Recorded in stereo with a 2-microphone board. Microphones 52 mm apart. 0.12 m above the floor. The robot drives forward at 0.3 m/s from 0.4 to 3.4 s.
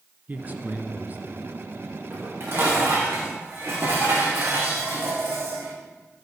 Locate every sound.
0.3 s a man speaking: 30° right (ahead or behind), 1.7 m
2.1 s dishes clattering: 55° right (ahead or behind), 5.5 m; by 5.8 s 60° right (ahead or behind), 5.5 m